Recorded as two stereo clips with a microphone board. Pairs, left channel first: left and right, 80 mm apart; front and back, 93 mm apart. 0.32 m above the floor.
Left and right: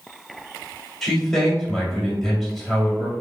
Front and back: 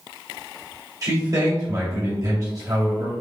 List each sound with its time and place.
1.0 s a man speaking: 175° left, 1.7 m